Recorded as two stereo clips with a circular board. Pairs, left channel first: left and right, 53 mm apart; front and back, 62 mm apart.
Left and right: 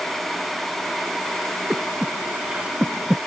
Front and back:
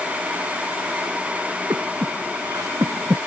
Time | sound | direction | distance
1.7 | breathing | 160° right | ?